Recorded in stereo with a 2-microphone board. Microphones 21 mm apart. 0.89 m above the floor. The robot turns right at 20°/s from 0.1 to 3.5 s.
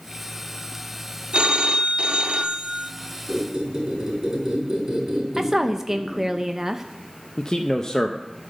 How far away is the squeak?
About 4.5 m.